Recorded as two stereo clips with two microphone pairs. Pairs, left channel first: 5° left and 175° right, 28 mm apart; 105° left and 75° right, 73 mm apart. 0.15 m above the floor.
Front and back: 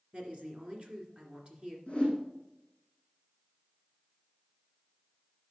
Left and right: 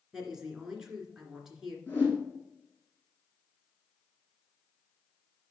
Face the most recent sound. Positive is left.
turn(degrees=50)